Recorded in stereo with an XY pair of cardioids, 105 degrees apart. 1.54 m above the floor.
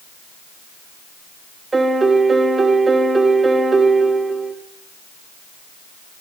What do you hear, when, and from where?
1.7 s a piano: 25° right, 1.4 m